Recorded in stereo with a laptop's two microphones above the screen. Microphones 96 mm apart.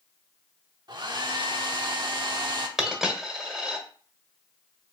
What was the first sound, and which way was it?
A hair dryer, 50° right (ahead or behind).